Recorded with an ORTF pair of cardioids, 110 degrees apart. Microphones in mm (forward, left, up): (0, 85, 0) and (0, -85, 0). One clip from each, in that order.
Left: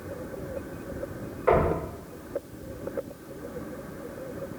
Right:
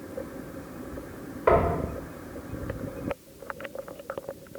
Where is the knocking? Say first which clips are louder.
Right 1 dB; 40° right, 2 m.